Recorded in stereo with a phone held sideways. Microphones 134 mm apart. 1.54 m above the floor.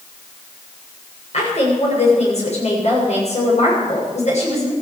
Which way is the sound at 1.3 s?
55° left (ahead or behind).